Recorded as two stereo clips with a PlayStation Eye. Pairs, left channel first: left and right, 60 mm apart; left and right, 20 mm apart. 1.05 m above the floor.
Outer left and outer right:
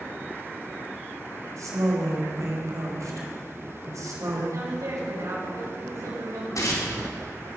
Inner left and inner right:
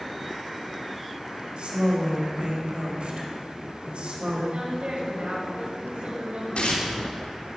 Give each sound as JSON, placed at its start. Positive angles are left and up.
{"t": 1.6, "sound": "a woman speaking", "side_deg": -60, "distance_m": 4.5}
{"t": 4.5, "sound": "a woman speaking", "side_deg": -65, "distance_m": 6.0}
{"t": 6.5, "sound": "tearing paper", "side_deg": 65, "distance_m": 3.0}